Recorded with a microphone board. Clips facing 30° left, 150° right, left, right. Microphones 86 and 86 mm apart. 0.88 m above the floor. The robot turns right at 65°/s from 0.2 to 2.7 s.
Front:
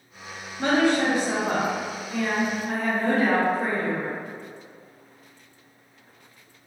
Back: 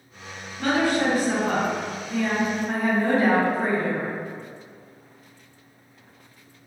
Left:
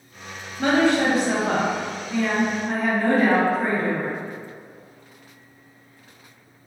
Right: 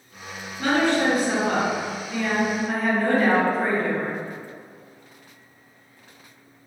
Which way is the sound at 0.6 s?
45° left.